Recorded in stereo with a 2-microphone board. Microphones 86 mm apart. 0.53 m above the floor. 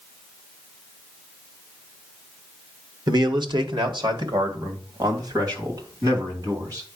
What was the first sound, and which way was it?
A man speaking, 55° right (ahead or behind).